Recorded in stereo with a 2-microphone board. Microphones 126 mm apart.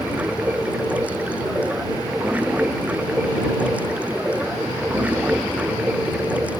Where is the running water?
10° right (ahead or behind).